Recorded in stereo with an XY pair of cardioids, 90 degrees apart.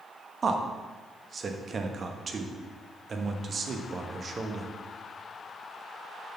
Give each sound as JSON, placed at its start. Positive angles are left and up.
{"t": 0.4, "sound": "a man speaking", "azimuth_deg": -45, "distance_m": 1.0}